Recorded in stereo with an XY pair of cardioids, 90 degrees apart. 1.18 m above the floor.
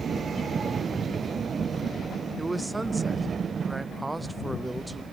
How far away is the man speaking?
About 0.9 m.